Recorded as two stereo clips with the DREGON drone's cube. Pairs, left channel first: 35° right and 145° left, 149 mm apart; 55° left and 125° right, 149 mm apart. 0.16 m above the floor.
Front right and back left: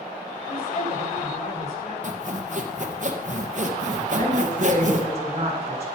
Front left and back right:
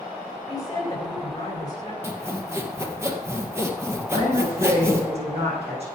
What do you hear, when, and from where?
0.5 s a woman speaking: 10° right, 8.5 m
2.0 s sawing: 165° left, 2 m
4.1 s a woman speaking: 170° right, 7 m